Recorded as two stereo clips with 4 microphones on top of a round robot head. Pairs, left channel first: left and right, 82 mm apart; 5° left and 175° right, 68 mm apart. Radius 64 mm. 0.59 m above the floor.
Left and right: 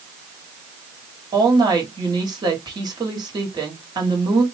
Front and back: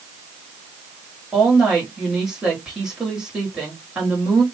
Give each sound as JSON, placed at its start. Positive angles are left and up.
{"t": 1.3, "sound": "a woman speaking", "azimuth_deg": -100, "distance_m": 1.9}